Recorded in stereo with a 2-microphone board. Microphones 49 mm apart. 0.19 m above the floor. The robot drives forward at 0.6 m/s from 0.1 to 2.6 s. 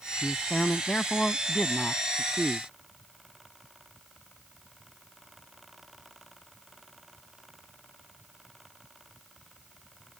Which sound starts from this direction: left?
A man speaking, at 0.2 s.